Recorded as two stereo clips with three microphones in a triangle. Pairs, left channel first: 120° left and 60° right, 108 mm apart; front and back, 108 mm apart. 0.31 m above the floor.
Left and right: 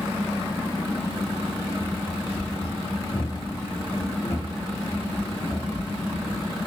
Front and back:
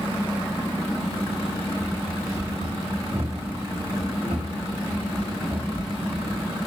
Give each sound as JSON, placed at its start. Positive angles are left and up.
{"t": 1.8, "sound": "running footsteps", "azimuth_deg": 160, "distance_m": 4.0}